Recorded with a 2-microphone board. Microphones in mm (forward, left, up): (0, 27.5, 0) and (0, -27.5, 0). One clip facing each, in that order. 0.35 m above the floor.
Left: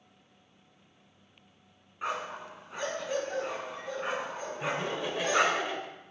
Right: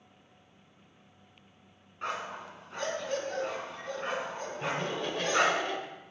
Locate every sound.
2.0 s a dog barking: 5° left (ahead or behind), 1.4 m
4.6 s laughter: 15° left (ahead or behind), 1.1 m